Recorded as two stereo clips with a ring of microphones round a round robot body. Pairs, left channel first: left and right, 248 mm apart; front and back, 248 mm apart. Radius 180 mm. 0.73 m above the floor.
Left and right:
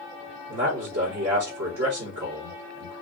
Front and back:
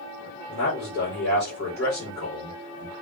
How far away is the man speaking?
About 2.5 m.